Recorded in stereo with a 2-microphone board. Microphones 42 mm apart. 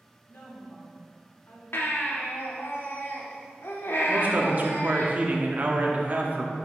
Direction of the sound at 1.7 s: 70° left (ahead or behind).